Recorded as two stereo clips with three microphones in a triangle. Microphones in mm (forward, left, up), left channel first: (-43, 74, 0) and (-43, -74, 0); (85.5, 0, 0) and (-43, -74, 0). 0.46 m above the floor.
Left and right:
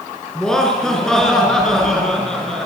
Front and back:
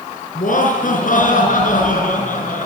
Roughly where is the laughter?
Ahead.